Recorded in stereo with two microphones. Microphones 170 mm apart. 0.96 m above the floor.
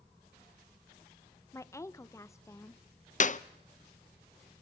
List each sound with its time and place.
1.5 s a woman speaking: 15° left (ahead or behind), 0.7 m
3.2 s a clap: 45° left (ahead or behind), 0.5 m